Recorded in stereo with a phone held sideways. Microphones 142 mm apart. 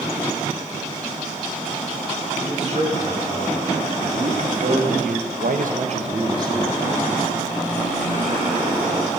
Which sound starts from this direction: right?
A man speaking, at 2.4 s.